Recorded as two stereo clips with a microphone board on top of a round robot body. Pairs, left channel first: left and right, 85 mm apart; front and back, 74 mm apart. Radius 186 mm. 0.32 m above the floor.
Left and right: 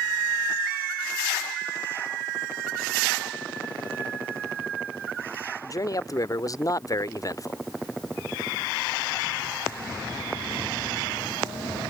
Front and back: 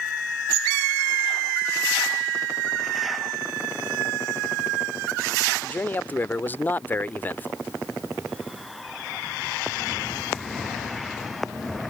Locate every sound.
5.6 s a man speaking: 55° left